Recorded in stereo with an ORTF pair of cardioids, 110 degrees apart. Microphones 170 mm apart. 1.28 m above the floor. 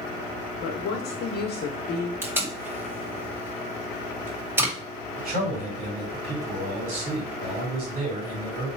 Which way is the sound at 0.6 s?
70° left.